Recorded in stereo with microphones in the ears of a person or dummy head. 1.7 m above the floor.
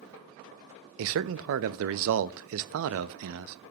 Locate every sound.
1.0 s a man speaking: 70° right (ahead or behind), 0.5 m